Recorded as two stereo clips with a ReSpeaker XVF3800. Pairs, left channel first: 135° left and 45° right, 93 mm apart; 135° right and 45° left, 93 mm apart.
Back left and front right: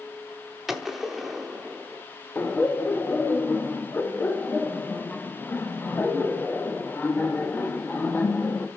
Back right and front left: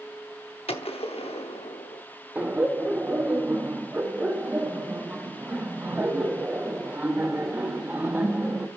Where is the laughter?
95° left, 0.8 m.